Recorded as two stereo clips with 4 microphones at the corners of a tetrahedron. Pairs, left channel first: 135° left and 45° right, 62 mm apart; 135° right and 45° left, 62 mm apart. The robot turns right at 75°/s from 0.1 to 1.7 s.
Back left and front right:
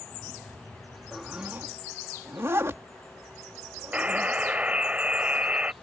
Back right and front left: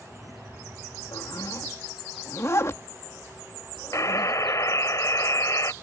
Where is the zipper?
140° right; by 4.3 s 95° right.